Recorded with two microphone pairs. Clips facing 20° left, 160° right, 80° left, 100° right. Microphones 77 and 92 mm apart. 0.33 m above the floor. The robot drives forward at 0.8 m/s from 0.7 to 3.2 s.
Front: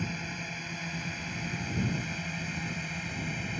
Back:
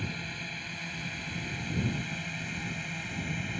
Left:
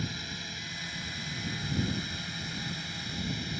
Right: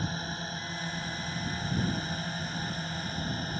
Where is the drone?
60° right; by 3.6 s 70° right.